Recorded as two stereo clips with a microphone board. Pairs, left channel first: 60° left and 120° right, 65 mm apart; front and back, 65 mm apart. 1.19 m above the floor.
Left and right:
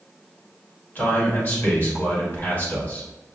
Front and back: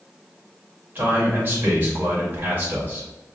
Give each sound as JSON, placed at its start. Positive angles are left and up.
{"t": 0.9, "sound": "a man speaking", "azimuth_deg": 120, "distance_m": 1.8}